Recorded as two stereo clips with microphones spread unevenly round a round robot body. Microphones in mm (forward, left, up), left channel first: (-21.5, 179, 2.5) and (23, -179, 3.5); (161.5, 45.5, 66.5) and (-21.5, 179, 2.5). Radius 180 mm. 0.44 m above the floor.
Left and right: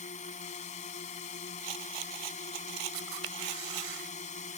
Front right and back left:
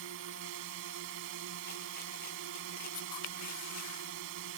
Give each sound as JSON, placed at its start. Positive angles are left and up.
{"t": 0.0, "sound": "a drone", "azimuth_deg": 170}
{"t": 1.6, "sound": "a rattle", "azimuth_deg": -100}
{"t": 2.9, "sound": "a camera shutter", "azimuth_deg": -60}